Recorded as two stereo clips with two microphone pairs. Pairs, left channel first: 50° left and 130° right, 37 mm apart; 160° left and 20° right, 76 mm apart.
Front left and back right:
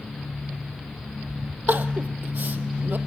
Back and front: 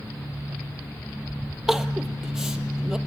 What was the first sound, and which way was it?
Crying, 105° right.